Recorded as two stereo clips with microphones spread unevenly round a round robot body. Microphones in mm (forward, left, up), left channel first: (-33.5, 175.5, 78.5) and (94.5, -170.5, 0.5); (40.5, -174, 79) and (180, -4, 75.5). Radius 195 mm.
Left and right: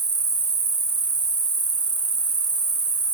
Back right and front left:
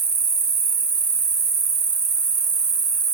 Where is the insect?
15° left, 1.4 m.